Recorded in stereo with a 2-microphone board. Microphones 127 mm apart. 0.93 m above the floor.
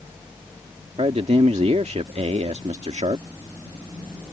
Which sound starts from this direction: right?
A man speaking, at 1.0 s.